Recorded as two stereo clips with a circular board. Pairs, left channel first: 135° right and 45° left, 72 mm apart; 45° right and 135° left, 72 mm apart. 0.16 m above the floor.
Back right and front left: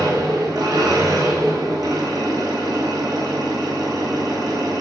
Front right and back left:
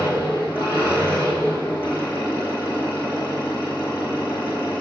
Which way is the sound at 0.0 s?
15° left.